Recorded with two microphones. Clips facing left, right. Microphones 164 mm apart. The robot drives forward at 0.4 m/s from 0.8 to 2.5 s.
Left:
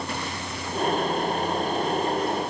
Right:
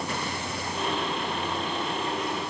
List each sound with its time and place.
Only background noise.